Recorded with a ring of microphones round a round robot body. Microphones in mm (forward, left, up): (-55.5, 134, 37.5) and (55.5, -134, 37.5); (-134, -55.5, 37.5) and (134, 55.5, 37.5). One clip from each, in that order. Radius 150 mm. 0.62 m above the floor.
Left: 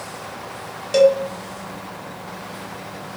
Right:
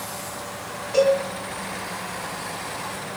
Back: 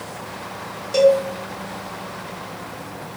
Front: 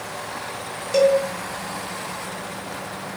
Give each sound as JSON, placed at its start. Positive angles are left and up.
{"t": 0.9, "sound": "a cowbell", "azimuth_deg": 100, "distance_m": 1.1}